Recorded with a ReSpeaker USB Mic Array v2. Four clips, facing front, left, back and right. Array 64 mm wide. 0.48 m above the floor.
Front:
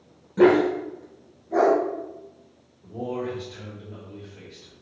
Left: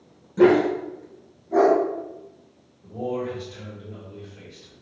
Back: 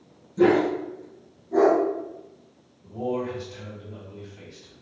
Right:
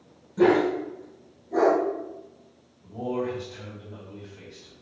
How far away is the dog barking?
About 0.5 m.